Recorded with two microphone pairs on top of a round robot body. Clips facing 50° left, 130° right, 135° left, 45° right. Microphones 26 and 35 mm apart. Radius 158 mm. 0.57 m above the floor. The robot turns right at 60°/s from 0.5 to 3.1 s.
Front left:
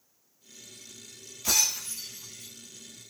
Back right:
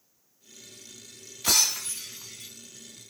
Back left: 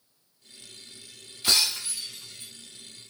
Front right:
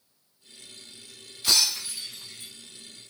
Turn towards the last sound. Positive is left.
turn(degrees=-50)